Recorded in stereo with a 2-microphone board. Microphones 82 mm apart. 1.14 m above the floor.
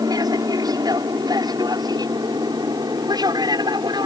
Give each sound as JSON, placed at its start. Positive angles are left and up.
{"t": 0.0, "sound": "an aircraft", "side_deg": -55}